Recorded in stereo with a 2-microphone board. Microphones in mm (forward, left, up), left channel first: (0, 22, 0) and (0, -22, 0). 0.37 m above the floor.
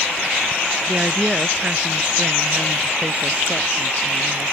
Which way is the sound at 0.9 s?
15° right (ahead or behind).